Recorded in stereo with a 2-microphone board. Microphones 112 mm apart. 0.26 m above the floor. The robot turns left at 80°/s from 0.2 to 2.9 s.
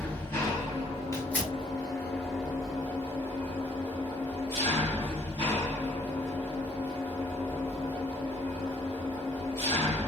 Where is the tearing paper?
30° left (ahead or behind), 1.2 m; by 1.5 s centre (ahead or behind), 1.2 m.